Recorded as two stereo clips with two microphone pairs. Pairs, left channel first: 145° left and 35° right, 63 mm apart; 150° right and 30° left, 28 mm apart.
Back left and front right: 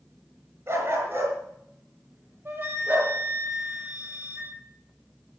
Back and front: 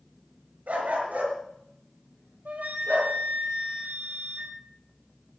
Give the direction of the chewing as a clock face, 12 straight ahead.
No chewing in this recording.